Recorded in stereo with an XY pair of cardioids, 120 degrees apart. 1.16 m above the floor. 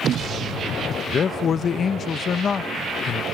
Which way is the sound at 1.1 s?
45° left.